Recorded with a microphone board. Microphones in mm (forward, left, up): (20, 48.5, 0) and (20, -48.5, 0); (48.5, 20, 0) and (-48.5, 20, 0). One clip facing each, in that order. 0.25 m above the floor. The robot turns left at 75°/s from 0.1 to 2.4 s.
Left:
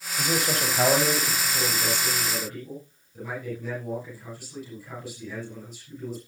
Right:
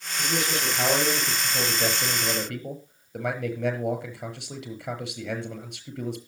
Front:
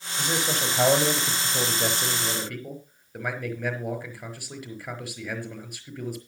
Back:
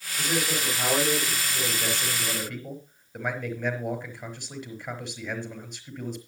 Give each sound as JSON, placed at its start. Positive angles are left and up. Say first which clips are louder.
{"t": 0.2, "sound": "a man speaking", "louder": "left 2 dB, front 1 dB", "azimuth_deg": 80, "distance_m": 5.0}